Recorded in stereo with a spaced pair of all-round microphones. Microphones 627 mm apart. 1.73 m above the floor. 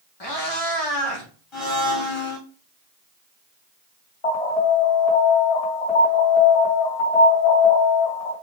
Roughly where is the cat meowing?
Left.